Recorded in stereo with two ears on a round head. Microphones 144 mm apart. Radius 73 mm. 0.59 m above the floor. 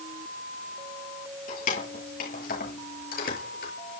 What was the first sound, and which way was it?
Keys jangling, 50° left (ahead or behind).